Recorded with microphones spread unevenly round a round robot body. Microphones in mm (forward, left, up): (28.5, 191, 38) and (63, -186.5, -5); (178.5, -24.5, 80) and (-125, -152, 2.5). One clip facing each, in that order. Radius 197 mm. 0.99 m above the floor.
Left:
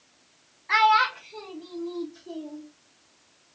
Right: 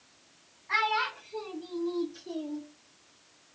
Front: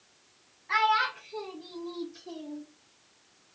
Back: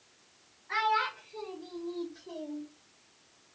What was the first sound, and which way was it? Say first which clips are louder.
A child speaking: left 8 dB, front 2 dB; 70° left.